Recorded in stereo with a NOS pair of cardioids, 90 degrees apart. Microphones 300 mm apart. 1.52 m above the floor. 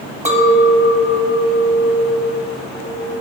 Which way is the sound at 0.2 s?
25° right.